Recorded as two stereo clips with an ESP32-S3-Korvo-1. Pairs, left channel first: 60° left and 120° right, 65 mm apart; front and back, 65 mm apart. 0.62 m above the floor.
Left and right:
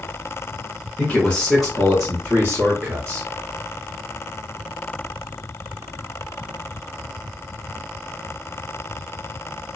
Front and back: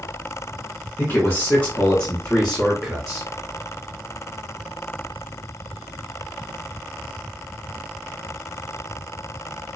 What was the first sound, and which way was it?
A man speaking, 10° left.